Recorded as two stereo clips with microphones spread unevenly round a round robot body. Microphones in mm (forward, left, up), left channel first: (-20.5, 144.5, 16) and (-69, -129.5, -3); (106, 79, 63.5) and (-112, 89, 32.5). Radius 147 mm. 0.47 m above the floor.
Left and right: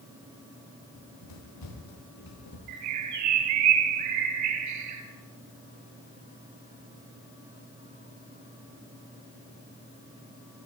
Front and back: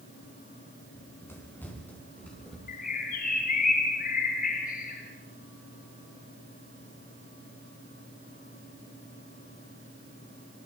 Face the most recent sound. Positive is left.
turn(degrees=-65)